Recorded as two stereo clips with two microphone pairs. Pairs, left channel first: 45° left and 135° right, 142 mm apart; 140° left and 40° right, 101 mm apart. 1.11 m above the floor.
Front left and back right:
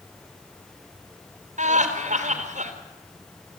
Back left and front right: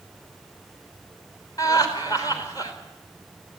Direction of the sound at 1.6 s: 165° right.